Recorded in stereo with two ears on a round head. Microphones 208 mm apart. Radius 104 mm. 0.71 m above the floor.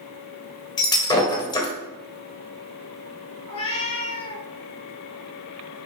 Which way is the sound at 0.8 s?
20° left (ahead or behind).